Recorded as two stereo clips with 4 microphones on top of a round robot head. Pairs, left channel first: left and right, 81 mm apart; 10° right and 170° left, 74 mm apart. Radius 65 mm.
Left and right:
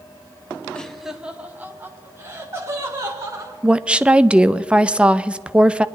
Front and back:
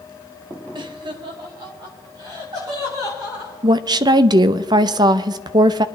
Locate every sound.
0.8 s laughter: 165° left, 1.3 m; by 3.5 s 140° right, 5 m
3.6 s a woman speaking: 165° right, 0.5 m